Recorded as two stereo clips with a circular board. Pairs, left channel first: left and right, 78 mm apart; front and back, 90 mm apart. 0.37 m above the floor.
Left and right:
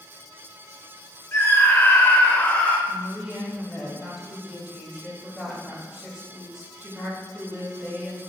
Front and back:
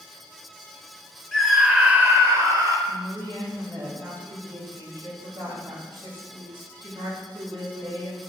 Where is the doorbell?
No doorbell in this recording.